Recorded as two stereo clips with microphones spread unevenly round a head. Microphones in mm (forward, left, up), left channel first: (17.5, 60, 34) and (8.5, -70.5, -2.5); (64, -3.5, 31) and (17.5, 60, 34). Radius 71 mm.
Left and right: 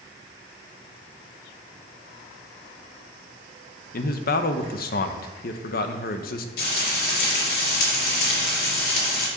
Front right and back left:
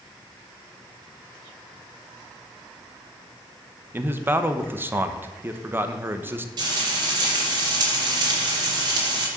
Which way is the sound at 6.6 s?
95° left.